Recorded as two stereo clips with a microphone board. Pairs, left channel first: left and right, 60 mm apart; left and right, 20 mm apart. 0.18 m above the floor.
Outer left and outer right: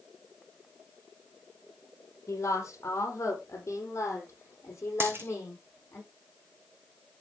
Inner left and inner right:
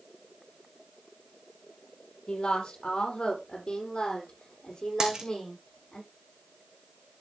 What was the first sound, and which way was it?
A woman speaking, 50° left (ahead or behind).